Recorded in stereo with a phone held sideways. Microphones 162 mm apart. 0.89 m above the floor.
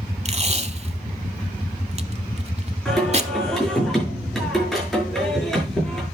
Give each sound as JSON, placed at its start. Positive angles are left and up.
{"t": 0.2, "sound": "tape being pulled", "side_deg": -40, "distance_m": 0.9}
{"t": 2.9, "sound": "singing", "side_deg": 0, "distance_m": 7.0}